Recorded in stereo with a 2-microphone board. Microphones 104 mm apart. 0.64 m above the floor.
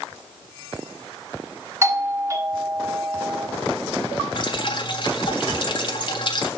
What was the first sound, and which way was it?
A doorbell, 25° right (ahead or behind).